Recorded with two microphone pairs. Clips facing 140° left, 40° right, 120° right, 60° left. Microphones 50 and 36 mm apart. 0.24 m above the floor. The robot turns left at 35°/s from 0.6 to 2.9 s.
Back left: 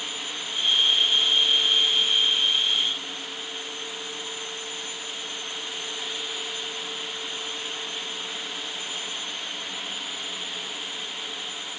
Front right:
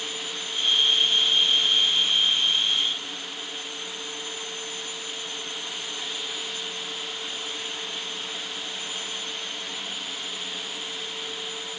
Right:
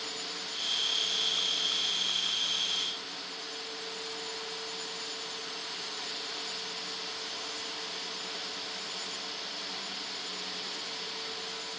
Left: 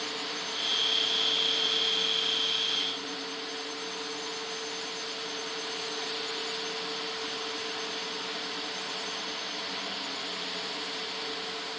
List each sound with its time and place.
Only background noise.